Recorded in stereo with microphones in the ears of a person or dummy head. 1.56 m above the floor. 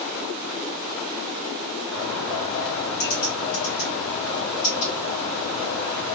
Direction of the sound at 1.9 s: 40° left (ahead or behind).